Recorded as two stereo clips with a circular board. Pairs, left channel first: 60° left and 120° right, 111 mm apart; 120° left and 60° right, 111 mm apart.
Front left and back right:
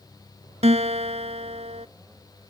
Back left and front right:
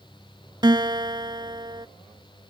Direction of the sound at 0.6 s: 110° right.